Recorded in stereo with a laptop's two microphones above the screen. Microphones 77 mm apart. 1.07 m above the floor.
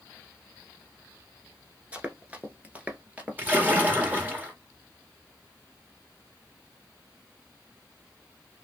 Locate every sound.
1.9 s running footsteps: 20° right (ahead or behind), 1.0 m; by 4.2 s 15° right (ahead or behind), 1.6 m
3.4 s a splash: 25° right (ahead or behind), 1.6 m